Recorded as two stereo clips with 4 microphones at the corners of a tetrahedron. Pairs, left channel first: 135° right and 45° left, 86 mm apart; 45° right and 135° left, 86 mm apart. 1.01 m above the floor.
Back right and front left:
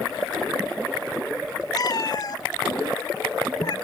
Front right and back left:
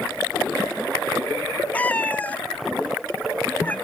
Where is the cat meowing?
115° right, 0.6 m.